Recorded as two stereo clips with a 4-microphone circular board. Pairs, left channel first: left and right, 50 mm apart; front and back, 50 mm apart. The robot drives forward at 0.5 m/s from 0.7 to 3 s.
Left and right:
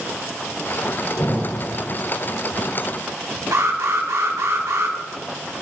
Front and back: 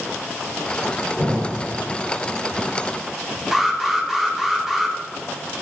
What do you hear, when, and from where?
1.2 s an explosion: 115° left, 4 m; by 1.8 s 120° left, 4 m
3.5 s an alarm: 95° right, 1.5 m